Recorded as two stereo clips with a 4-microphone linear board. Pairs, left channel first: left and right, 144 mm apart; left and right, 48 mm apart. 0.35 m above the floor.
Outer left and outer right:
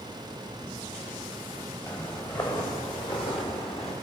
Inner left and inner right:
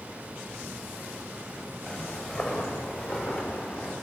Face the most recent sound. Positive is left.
turn(degrees=40)  # may be behind; listen again after turning